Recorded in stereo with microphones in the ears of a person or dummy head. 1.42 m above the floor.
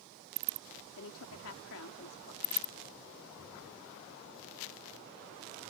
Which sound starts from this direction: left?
A woman speaking, at 1.0 s.